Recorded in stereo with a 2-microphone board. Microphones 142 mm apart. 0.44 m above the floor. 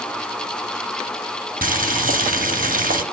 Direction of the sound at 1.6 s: 85° right.